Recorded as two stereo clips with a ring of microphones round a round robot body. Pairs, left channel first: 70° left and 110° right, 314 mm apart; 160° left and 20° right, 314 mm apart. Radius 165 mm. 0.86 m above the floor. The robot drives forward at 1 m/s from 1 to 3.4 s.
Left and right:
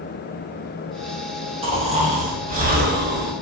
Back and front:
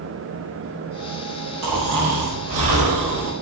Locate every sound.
1.6 s snoring: 40° right, 4.5 m; by 3.3 s 55° right, 3.5 m